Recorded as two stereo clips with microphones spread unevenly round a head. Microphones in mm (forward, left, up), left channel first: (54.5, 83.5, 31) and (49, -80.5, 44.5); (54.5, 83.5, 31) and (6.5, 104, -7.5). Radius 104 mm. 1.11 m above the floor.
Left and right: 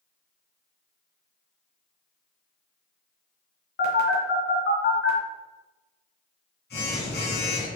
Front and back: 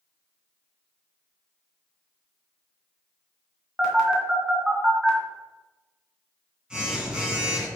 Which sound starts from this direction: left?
A phone buzzing, at 3.8 s.